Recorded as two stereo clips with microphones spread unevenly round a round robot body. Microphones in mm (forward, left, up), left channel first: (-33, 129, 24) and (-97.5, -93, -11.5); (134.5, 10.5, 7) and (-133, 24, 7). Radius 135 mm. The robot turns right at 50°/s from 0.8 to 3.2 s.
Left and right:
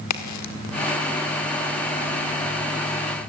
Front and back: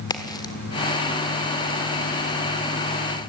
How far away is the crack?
About 1.9 m.